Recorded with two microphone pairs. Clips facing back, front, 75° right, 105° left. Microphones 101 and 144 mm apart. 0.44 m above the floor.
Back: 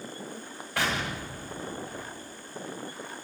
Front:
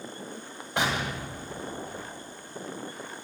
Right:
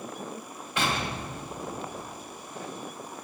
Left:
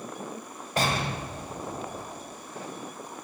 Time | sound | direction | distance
0.8 | an explosion | 65° left | 2 m